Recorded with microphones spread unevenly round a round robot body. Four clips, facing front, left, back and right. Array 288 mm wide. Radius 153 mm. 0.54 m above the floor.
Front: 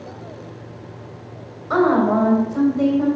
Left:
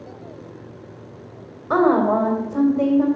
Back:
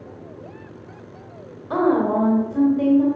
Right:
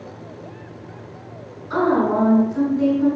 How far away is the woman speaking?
About 3 m.